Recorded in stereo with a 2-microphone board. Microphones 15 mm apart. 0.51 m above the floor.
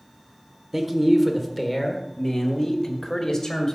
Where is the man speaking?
10° right (ahead or behind), 1.5 m; by 3.8 s 45° left (ahead or behind), 2.5 m.